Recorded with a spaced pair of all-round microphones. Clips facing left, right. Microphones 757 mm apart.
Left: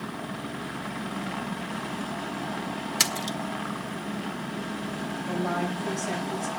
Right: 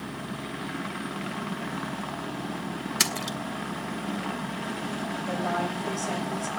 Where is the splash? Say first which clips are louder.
Even; 10° left (ahead or behind), 0.9 m.